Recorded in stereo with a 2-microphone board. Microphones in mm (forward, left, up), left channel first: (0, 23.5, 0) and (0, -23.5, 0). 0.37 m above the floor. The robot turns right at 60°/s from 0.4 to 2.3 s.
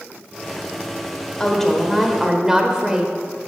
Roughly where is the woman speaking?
Behind left.